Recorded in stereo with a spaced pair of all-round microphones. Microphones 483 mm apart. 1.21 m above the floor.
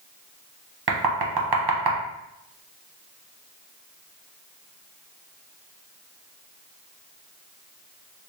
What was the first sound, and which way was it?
Knocking, 55° right (ahead or behind).